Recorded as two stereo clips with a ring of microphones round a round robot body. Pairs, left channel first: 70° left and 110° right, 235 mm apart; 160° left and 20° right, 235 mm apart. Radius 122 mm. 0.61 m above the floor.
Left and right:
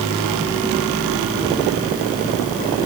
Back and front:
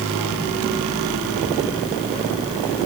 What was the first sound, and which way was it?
Only background noise.